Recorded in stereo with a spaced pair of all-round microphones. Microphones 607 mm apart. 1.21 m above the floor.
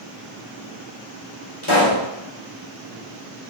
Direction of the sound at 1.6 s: 55° left (ahead or behind).